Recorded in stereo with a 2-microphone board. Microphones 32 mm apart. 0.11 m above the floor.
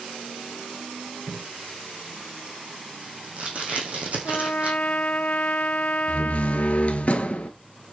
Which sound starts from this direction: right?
Tape being pulled, at 1.3 s.